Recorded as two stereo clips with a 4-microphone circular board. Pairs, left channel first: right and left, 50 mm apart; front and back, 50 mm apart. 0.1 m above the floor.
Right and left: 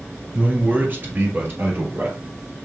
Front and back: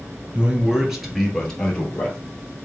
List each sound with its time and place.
0.3 s a man speaking: 130° left, 1.5 m; by 2.2 s 60° left, 2 m